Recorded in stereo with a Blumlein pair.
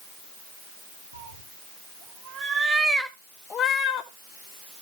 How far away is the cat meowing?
About 1.6 m.